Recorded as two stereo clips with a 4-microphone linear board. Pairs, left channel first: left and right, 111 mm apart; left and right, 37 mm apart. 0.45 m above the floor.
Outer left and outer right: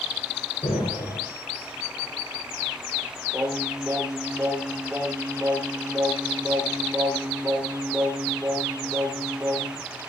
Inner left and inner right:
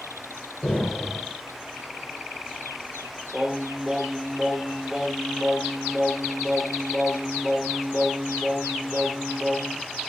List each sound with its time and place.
0.6 s an explosion: 65° left (ahead or behind), 6 m
3.3 s singing: 10° right (ahead or behind), 9 m